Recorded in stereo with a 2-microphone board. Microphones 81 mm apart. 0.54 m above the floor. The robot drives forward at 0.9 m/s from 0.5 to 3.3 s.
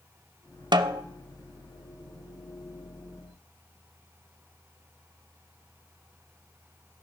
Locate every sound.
0.7 s a snare drum: 70° right (ahead or behind), 0.6 m; by 1.0 s 50° right (ahead or behind), 0.7 m